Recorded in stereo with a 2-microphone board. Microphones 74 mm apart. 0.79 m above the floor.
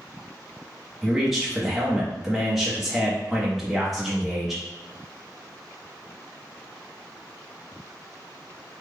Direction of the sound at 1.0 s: Centre (ahead or behind).